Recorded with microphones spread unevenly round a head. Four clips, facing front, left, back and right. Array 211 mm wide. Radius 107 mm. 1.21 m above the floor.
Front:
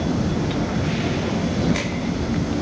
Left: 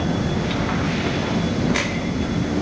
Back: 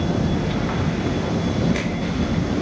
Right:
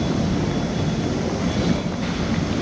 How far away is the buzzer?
I don't hear a buzzer.